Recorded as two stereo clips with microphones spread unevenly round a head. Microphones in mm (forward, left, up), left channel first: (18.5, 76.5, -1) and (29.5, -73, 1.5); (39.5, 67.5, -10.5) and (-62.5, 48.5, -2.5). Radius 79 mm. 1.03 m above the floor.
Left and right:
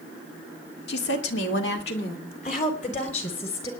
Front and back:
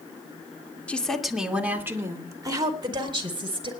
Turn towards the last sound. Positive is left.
turn(degrees=155)